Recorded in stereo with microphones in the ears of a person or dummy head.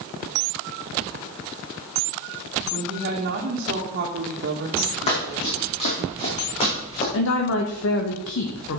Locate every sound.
2.7 s a woman speaking: 45° right (ahead or behind), 1.6 m
5.1 s running footsteps: 40° left (ahead or behind), 4 m; by 7.0 s 35° left (ahead or behind), 5.5 m
7.1 s a woman speaking: 80° left, 1.3 m